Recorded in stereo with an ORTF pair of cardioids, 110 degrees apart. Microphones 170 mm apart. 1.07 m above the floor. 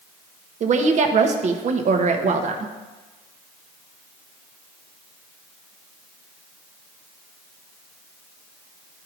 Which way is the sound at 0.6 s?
45° right.